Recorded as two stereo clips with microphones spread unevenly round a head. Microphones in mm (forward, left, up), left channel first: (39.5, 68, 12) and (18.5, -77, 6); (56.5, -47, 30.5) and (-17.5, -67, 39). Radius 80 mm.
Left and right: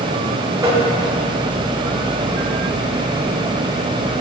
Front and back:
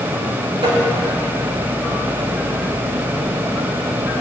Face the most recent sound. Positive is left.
turn(degrees=-170)